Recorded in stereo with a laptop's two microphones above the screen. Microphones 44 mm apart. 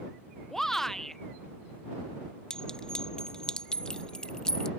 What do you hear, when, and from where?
0.5 s a shout: 10° left (ahead or behind)
2.5 s a clink: 20° left (ahead or behind)